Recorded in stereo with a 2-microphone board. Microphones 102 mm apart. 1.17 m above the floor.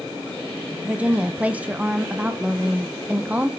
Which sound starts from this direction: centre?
A woman speaking, at 0.8 s.